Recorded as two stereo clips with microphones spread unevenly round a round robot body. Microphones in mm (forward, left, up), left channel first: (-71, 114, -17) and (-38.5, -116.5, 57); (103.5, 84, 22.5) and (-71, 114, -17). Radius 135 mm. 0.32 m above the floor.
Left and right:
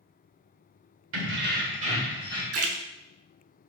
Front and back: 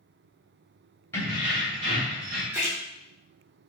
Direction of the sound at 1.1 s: 95° right.